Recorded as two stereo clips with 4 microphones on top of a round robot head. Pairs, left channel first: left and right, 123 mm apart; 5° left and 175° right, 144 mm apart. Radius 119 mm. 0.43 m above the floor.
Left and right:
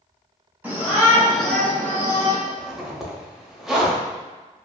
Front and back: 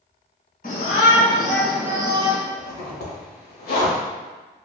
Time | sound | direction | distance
0.6 | a shout | 15° right | 1.5 m
2.5 | a zipper | straight ahead | 0.9 m